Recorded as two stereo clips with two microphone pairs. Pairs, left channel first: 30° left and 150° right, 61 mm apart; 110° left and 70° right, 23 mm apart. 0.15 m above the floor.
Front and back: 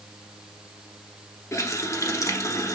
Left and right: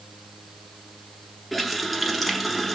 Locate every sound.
1.5 s a running tap: 20° left, 1.3 m